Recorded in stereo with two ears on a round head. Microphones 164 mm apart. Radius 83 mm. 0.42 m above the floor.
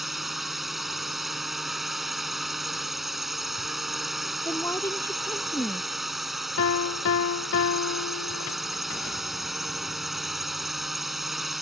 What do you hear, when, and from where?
0.0 s a drone: centre (ahead or behind)
4.5 s a woman speaking: 15° left (ahead or behind)
6.6 s a piano: 75° left (ahead or behind)